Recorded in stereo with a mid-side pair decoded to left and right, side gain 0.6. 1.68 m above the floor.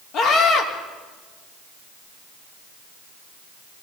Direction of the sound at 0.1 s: 60° left.